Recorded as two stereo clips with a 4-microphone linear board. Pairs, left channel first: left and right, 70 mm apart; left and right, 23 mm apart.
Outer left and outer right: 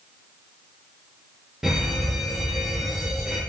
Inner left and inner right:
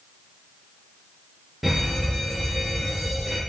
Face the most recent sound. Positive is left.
turn(degrees=-5)  # may be behind; listen again after turning